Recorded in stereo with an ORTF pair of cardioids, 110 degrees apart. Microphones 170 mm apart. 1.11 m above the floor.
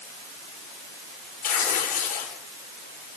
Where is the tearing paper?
55° left, 7.5 m.